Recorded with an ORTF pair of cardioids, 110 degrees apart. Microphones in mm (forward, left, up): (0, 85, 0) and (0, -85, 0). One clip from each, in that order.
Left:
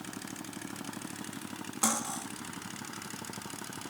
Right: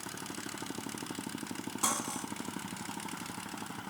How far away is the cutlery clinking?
About 1.4 m.